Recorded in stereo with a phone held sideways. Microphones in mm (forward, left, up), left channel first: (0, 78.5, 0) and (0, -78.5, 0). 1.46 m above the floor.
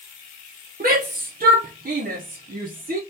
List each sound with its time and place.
0.8 s a shout: 60° right (ahead or behind), 0.6 m